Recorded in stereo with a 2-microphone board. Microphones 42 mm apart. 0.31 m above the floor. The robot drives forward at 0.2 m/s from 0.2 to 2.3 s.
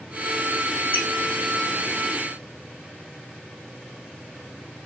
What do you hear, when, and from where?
0.9 s a squeak: 40° left (ahead or behind), 1.1 m